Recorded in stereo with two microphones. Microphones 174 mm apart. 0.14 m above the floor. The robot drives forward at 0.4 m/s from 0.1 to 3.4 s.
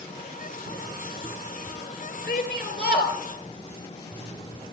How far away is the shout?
About 3 m.